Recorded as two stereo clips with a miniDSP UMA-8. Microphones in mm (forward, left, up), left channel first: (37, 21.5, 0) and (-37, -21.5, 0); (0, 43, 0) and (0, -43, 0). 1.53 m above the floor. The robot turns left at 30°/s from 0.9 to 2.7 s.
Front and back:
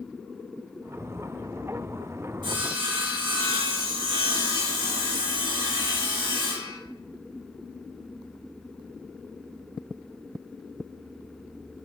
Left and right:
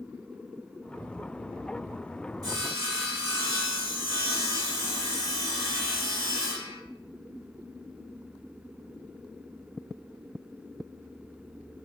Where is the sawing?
130° right, 1.2 m; by 6.8 s 135° right, 1.2 m.